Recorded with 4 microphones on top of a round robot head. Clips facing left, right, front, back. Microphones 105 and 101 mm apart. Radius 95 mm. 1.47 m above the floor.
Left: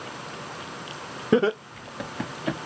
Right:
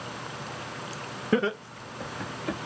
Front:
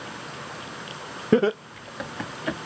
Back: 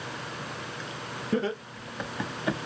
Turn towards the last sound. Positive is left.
turn(degrees=110)